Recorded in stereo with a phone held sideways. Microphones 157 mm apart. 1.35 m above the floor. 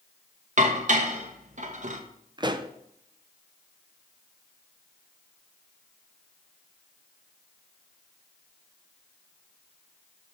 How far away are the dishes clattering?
About 0.8 m.